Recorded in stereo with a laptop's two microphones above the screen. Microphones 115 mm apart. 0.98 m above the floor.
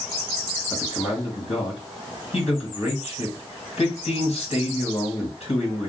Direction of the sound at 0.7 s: 60° left (ahead or behind).